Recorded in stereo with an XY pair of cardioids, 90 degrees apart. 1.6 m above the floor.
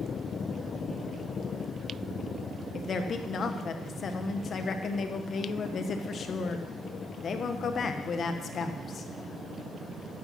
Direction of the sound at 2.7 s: 50° left.